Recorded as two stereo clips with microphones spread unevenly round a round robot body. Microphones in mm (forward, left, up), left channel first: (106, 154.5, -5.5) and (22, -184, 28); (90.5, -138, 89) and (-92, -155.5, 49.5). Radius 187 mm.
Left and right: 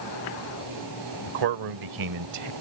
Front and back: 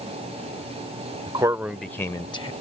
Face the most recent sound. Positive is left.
turn(degrees=-60)